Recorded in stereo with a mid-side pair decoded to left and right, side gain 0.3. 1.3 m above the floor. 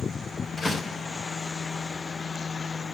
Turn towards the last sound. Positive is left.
turn(degrees=55)